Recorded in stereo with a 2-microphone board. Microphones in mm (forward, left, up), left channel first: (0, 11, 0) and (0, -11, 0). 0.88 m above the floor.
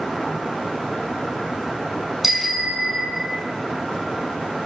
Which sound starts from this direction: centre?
A bicycle bell, at 2.2 s.